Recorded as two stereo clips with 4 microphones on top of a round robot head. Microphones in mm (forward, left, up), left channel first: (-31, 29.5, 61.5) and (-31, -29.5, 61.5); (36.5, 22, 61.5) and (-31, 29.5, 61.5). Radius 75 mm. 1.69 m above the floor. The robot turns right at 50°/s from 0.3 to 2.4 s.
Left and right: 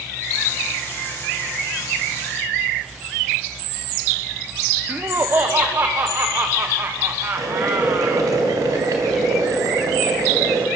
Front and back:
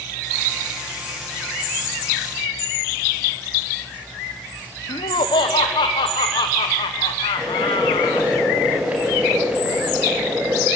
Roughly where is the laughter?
Ahead right.